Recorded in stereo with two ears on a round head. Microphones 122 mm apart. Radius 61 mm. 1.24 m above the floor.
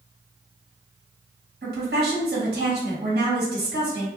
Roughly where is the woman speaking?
Right.